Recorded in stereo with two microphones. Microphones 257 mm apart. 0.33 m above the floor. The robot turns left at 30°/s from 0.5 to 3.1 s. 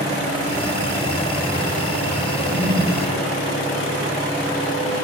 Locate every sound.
2.4 s a toilet flushing: 35° right (ahead or behind), 8.5 m; by 3.1 s 55° right (ahead or behind), 8.5 m